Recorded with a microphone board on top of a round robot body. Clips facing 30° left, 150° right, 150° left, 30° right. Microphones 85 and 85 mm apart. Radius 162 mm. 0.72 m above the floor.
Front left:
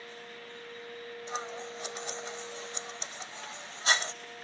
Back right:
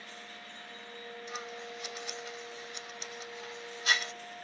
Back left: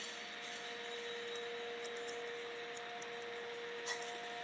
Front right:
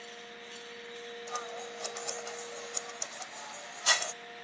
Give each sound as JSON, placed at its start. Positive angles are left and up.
{"t": 1.3, "sound": "scissors", "azimuth_deg": -30}